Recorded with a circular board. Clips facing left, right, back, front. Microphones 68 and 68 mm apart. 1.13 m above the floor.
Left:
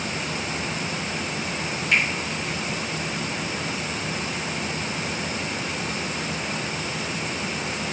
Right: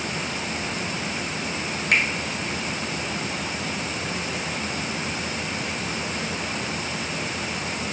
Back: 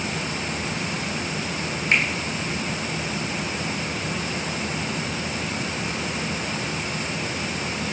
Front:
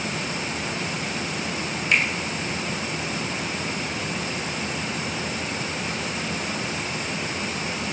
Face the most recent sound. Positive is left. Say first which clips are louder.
# even, even
turn(degrees=-125)